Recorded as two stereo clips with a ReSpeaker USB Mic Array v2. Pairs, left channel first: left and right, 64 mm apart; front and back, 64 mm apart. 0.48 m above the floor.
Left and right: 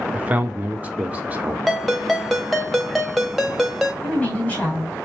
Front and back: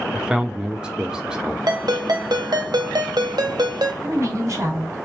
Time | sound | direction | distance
0.1 | a man speaking | 120° right | 0.8 m
1.7 | a ringtone | straight behind | 1.0 m
4.0 | a woman speaking | 150° left | 1.8 m